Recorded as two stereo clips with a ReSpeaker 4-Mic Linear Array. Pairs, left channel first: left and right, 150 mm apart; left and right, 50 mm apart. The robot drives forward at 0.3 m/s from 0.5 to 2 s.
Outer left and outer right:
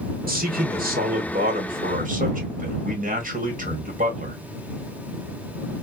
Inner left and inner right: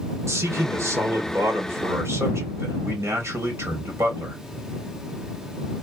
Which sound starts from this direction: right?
A man speaking, at 0.3 s.